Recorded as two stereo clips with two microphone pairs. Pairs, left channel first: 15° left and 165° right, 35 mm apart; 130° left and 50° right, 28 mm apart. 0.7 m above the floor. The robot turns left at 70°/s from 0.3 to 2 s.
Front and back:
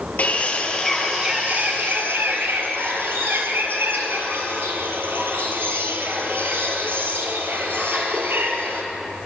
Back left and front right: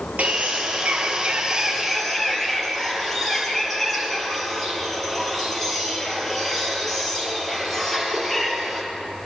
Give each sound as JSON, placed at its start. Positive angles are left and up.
{"t": 0.2, "sound": "a bird", "azimuth_deg": -25, "distance_m": 4.0}